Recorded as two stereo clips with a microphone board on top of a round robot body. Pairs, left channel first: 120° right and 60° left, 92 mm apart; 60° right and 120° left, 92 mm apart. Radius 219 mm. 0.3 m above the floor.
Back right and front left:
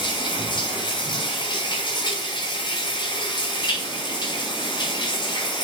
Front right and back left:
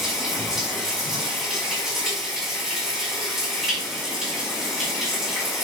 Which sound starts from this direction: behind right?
Running water, at 0.0 s.